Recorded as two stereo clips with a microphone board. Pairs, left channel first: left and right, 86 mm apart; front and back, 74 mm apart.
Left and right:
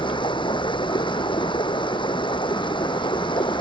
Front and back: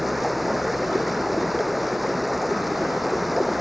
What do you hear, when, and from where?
0.0 s running water: 90° left